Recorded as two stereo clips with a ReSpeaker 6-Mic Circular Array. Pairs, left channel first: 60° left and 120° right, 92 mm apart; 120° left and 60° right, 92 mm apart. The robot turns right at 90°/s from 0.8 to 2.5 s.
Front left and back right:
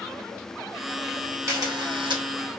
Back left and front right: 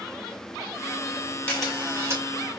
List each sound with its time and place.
1.5 s a camera shutter: 170° right, 1.6 m; by 2.2 s 100° right, 1.6 m